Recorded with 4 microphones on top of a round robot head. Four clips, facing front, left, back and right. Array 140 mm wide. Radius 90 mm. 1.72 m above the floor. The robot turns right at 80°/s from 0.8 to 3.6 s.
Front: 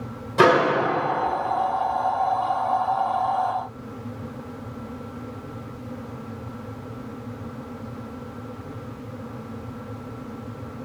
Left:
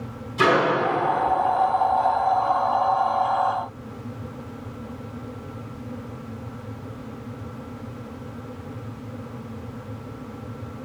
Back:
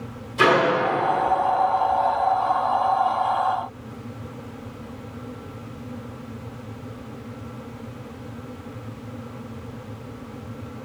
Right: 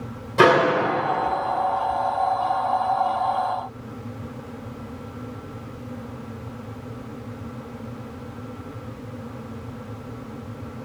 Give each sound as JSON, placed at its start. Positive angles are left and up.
{"t": 0.4, "sound": "a microwave", "azimuth_deg": -45, "distance_m": 2.0}